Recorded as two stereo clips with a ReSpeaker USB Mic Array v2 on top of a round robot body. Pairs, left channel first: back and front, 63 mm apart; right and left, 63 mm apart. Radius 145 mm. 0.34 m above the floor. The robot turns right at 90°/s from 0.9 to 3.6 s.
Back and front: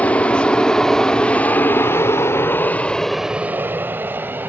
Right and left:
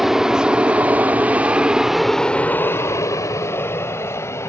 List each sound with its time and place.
0.0 s an aircraft: 170° left; by 4.5 s 55° right